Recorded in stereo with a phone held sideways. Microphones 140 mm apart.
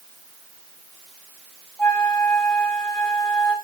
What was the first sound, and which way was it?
A flute, 5° left (ahead or behind).